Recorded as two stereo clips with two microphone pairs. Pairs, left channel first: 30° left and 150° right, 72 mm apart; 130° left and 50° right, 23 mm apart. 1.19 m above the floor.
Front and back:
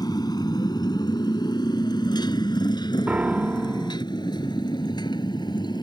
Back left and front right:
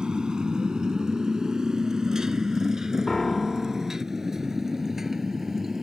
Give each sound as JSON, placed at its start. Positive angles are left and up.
{"t": 0.0, "sound": "a motorcycle", "azimuth_deg": 5}
{"t": 3.1, "sound": "a piano", "azimuth_deg": 170}